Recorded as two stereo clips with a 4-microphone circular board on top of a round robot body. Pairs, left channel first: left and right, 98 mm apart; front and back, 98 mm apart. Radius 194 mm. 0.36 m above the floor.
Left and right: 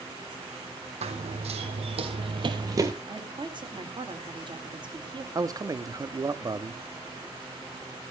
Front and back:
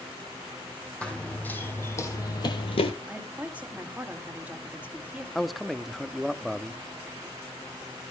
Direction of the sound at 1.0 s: 80° right.